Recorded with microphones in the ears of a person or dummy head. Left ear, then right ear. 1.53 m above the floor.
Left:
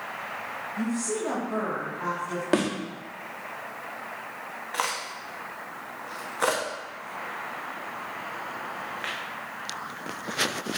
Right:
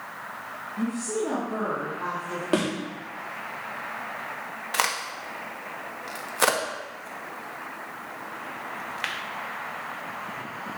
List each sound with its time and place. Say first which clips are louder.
0.8 s a woman speaking: right 2 dB; 40° left (ahead or behind), 1.7 m
2.5 s a thud: even; 15° left (ahead or behind), 1.0 m
4.7 s a crack: right 3 dB; 20° right (ahead or behind), 0.8 m